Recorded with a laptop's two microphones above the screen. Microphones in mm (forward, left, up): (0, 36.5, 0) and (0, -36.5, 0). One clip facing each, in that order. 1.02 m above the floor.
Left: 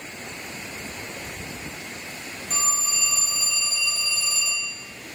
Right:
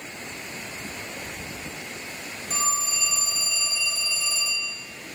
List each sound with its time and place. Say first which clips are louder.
2.5 s a phone ringing: right 1 dB; 10° right (ahead or behind), 0.6 m